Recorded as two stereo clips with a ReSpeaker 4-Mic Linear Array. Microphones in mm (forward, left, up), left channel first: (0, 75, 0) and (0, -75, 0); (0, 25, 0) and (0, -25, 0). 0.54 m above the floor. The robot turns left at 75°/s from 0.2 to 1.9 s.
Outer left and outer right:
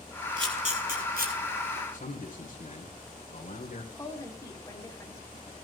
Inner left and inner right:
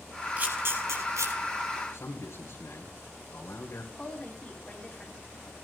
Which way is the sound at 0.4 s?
30° right (ahead or behind).